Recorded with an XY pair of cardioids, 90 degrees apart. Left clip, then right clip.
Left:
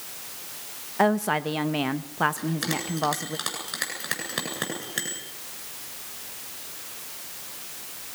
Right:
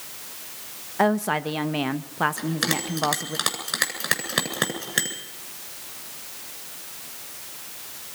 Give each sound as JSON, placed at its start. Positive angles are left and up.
{"t": 1.0, "sound": "a woman speaking", "azimuth_deg": -5, "distance_m": 1.4}
{"t": 2.4, "sound": "a bell", "azimuth_deg": -45, "distance_m": 8.5}